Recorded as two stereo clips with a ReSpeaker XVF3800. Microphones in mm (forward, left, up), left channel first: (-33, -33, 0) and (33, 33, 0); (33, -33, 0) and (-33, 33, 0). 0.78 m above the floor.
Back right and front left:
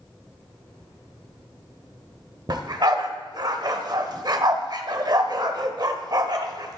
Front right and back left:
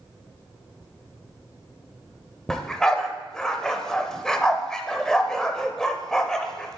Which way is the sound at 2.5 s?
35° left.